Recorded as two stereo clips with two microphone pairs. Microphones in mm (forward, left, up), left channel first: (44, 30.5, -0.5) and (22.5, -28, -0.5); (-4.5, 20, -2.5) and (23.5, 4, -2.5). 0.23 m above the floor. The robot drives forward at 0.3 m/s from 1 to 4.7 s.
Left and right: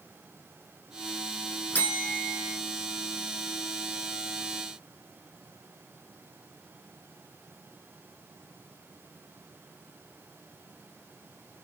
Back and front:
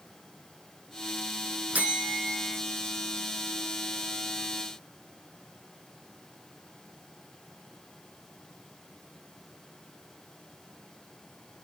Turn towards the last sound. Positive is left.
turn(degrees=130)